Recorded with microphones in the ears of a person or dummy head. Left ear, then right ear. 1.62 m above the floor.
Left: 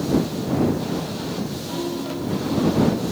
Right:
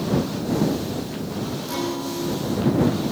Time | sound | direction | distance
1.7 | a guitar | 75° right (ahead or behind) | ?